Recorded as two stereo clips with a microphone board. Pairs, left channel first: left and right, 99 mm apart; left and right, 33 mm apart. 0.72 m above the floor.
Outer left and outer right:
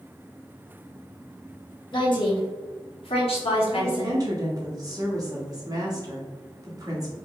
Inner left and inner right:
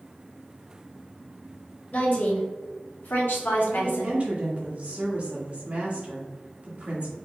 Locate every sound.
1.9 s a woman speaking: 50° left (ahead or behind), 1.6 m; by 4.2 s 65° left (ahead or behind), 1.3 m
3.7 s a woman speaking: 40° right (ahead or behind), 1.2 m